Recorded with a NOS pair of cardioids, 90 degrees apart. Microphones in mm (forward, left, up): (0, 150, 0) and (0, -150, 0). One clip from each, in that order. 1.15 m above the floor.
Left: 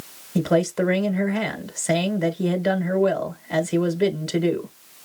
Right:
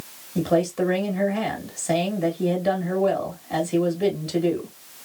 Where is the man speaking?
65° left, 1.6 m.